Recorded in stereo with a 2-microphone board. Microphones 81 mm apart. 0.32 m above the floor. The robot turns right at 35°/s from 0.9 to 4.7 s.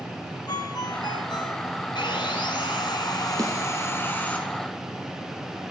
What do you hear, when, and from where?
0.5 s a ringtone: 55° left (ahead or behind), 2.5 m; by 1.6 s 70° left (ahead or behind), 2.5 m
1.9 s sawing: 80° left, 4.5 m; by 4.4 s 165° left, 4.5 m
3.4 s a snare drum: 45° right (ahead or behind), 7 m; by 3.6 s 55° right (ahead or behind), 7 m